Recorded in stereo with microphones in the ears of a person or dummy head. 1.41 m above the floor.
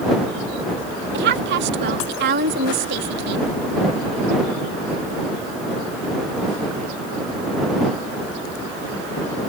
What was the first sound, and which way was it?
A woman speaking, 60° right (ahead or behind).